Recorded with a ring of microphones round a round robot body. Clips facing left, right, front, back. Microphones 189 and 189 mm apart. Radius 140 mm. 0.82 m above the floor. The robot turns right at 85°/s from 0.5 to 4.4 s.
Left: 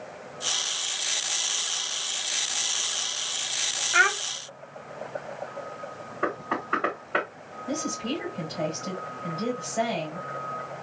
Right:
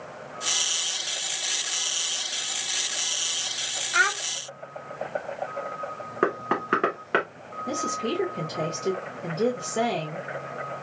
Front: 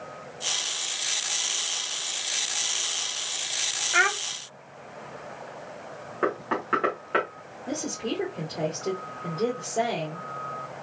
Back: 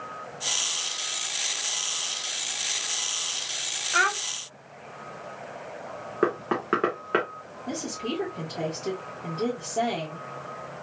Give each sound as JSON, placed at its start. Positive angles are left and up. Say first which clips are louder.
{"t": 3.9, "sound": "a child speaking", "louder": "left 3 dB, front 1 dB", "azimuth_deg": 60, "distance_m": 0.6}
{"t": 6.2, "sound": "knocking", "louder": "right 5 dB, back 2 dB", "azimuth_deg": -120, "distance_m": 1.5}
{"t": 7.7, "sound": "a woman speaking", "louder": "right 1 dB, front 1 dB", "azimuth_deg": -90, "distance_m": 1.5}